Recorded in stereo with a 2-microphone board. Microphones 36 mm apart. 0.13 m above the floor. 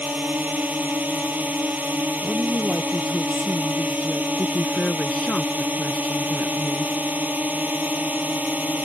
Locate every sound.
0.0 s a drone: 50° right (ahead or behind)
2.2 s a woman speaking: 15° right (ahead or behind)
4.4 s a woman speaking: 30° left (ahead or behind)